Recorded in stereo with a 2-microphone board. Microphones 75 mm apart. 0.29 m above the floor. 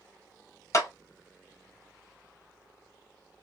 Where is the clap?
45° left (ahead or behind), 1.1 m.